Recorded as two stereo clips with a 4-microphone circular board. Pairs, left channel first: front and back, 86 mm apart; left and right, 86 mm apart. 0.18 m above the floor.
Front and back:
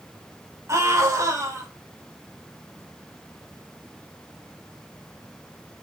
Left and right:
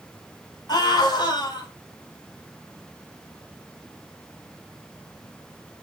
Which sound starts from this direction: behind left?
A scream, at 0.7 s.